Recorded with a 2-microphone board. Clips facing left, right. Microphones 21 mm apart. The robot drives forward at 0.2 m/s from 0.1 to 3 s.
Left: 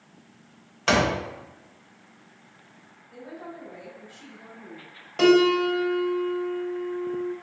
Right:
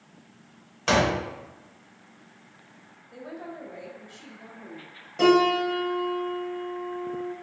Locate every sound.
0.9 s a door slam: 10° left (ahead or behind), 0.6 m
3.1 s a woman speaking: 30° right (ahead or behind), 0.9 m
5.2 s a piano: 25° left (ahead or behind), 0.7 m